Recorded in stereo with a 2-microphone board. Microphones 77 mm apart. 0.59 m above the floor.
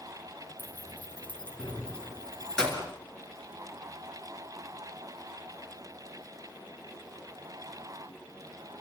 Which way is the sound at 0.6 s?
20° left (ahead or behind).